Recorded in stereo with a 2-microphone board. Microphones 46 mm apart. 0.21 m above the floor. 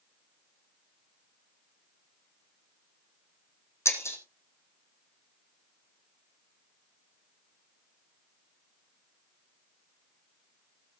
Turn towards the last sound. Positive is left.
turn(degrees=85)